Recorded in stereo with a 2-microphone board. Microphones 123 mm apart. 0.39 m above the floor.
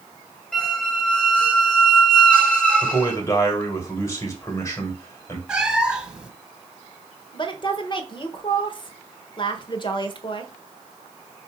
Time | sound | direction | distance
0.5 | a squeak | 5° left (ahead or behind) | 1.6 m
2.8 | a man speaking | 20° left (ahead or behind) | 1.8 m
5.5 | a cat meowing | 10° right (ahead or behind) | 1.0 m
7.3 | a woman speaking | 40° left (ahead or behind) | 1.2 m